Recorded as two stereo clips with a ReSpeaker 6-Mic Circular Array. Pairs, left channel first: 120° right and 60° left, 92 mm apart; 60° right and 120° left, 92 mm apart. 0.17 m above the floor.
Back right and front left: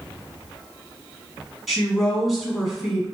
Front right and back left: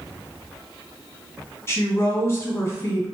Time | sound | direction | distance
1.7 | a woman speaking | 30° right | 1.3 m